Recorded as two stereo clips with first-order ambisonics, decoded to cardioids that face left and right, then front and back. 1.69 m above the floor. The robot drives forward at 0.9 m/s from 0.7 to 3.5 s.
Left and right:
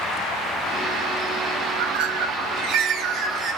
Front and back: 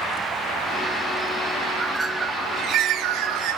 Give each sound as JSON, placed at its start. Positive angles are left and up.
{"t": 1.7, "sound": "a bird", "azimuth_deg": -80, "distance_m": 1.0}